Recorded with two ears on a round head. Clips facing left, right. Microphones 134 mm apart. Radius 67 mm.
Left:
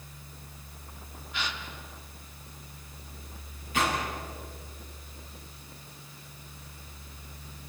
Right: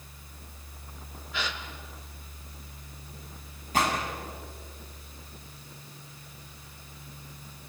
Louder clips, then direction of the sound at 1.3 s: Right 1 dB; 70° right (ahead or behind).